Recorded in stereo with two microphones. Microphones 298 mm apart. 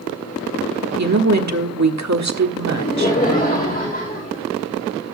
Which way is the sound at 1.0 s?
55° right (ahead or behind).